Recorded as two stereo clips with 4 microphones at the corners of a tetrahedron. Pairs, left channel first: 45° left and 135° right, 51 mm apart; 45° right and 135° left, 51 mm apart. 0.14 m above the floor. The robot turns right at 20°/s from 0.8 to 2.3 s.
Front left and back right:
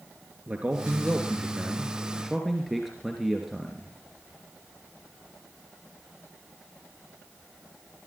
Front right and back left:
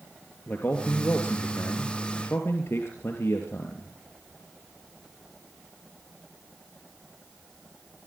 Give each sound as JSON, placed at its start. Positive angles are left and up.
{"t": 0.5, "sound": "a man speaking", "azimuth_deg": -80, "distance_m": 3.0}